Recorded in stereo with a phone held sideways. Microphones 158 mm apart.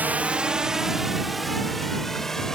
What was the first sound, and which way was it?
A drone, 10° right (ahead or behind).